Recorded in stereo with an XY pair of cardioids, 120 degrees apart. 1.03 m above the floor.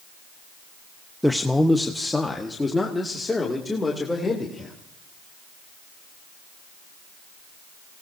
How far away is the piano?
No piano in this recording.